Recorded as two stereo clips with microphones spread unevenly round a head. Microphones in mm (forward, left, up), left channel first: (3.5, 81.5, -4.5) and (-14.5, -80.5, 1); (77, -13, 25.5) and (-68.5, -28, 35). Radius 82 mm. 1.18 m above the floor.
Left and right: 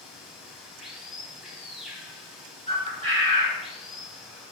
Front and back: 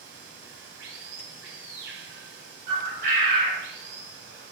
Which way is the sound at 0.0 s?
175° left.